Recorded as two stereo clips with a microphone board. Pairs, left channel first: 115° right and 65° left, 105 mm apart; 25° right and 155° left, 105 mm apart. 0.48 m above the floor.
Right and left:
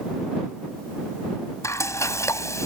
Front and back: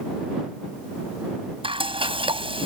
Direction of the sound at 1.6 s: 175° right.